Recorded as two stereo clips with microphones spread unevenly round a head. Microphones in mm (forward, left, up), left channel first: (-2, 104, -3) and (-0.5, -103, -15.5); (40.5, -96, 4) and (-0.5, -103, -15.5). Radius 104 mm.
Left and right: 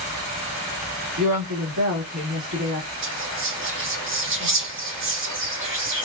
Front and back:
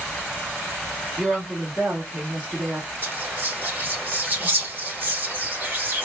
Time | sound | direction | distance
1.2 | a woman speaking | 100° right | 1.5 m
3.0 | whispering | 125° right | 1.8 m